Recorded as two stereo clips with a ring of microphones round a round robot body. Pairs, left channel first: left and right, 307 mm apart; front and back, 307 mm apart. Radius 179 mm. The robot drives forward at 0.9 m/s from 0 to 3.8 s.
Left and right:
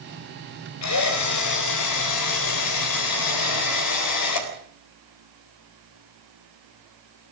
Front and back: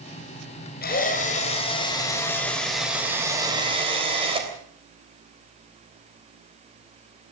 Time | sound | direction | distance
0.8 | a drill | 60° left | 4 m